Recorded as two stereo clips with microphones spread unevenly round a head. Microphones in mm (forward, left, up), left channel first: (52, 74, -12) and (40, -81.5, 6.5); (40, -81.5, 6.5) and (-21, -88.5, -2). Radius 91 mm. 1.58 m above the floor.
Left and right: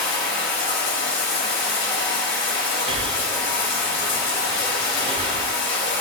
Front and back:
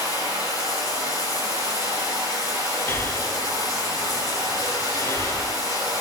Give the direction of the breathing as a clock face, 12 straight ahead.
1 o'clock.